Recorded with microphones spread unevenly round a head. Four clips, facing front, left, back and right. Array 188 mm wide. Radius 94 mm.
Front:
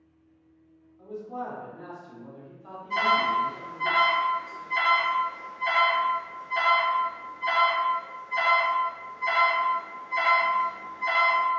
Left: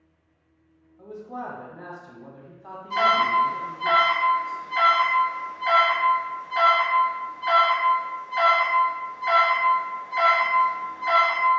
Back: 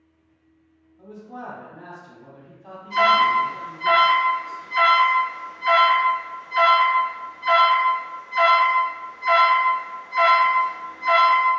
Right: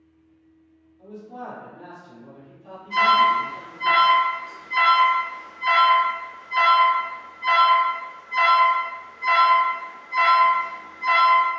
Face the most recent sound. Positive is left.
turn(degrees=35)